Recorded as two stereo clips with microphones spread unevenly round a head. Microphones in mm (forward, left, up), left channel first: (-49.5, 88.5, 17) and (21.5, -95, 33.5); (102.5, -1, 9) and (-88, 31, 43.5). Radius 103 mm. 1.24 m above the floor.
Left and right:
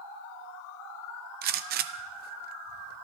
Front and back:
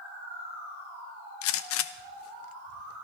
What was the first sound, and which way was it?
A gunshot, 30° right.